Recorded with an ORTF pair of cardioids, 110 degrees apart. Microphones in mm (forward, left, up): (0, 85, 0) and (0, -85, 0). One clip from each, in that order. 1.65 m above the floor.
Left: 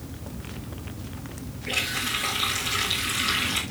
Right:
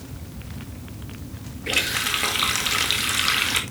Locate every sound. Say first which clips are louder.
1.7 s a running tap: right 4 dB; 55° right, 2 m